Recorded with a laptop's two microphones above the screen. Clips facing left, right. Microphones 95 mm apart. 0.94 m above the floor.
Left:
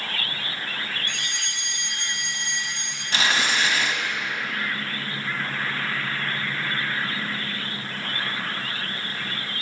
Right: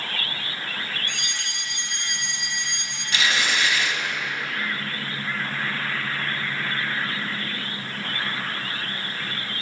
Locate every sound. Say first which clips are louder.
1.1 s a fire alarm: even; 45° right (ahead or behind), 3 m
3.1 s tearing paper: left 1 dB; 35° left (ahead or behind), 1.2 m